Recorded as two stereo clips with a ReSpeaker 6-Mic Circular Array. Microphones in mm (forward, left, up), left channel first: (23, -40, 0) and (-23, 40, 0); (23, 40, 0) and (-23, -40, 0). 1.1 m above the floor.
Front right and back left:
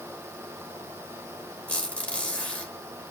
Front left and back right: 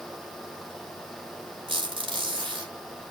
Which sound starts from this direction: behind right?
A squeak, at 1.7 s.